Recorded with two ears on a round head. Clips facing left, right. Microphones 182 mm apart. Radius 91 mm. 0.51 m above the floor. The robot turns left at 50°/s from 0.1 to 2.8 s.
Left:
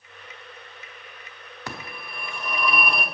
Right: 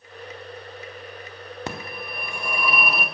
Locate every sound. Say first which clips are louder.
1.7 s a phone ringing: right 3 dB; 20° right (ahead or behind), 0.7 m; by 3.0 s 5° right (ahead or behind), 0.7 m